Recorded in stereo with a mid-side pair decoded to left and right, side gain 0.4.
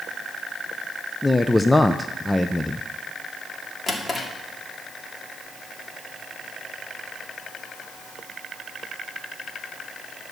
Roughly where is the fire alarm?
No fire alarm in this recording.